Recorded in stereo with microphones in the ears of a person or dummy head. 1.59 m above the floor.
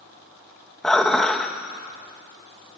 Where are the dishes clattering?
Centre (ahead or behind), 1.0 m.